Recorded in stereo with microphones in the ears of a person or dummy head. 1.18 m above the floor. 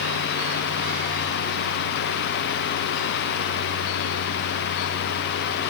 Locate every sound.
Only background noise.